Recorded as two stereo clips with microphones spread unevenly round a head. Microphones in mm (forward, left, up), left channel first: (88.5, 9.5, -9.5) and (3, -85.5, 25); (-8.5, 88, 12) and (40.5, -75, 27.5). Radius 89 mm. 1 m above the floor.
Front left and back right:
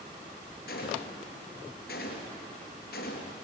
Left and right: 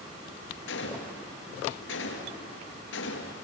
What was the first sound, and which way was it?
A gunshot, 90° left.